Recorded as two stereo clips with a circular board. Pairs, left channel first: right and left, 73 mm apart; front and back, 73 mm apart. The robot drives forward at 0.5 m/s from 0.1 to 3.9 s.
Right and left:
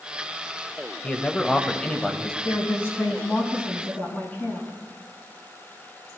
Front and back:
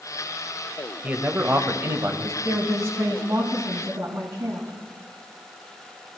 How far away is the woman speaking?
About 2 m.